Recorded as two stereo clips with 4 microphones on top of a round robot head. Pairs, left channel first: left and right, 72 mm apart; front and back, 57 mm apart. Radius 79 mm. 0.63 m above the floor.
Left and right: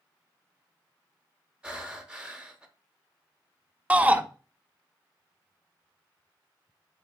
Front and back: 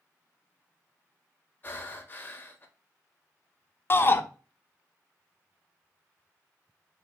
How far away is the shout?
About 0.7 m.